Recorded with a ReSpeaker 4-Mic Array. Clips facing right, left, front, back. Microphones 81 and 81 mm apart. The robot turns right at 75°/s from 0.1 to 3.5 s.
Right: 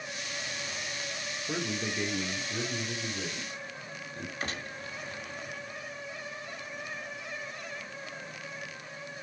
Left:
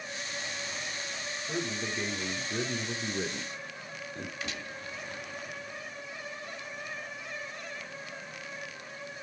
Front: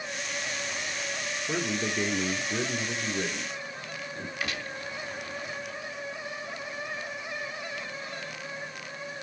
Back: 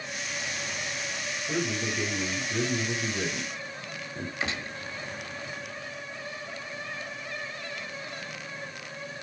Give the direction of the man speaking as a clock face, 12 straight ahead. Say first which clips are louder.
Right 1 dB, even; 1 o'clock.